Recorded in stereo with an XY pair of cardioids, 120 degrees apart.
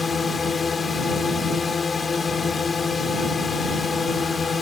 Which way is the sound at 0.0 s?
25° left.